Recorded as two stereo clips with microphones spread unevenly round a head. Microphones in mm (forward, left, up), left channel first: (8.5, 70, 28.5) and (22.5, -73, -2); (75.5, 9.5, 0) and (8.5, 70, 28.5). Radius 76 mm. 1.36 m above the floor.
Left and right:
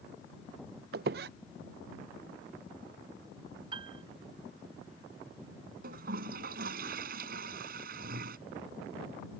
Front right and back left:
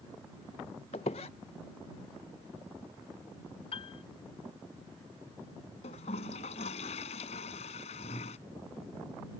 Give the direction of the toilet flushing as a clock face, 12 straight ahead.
2 o'clock.